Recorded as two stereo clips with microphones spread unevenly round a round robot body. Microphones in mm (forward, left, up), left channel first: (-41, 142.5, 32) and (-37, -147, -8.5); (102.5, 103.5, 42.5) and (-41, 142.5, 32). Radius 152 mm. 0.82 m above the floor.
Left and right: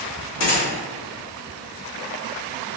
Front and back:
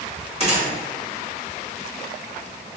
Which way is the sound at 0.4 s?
125° left.